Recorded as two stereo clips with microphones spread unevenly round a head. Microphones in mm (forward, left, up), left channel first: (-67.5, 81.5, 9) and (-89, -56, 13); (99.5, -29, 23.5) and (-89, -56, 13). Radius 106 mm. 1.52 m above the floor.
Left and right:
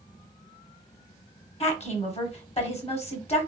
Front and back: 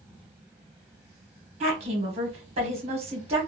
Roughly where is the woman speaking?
Behind left.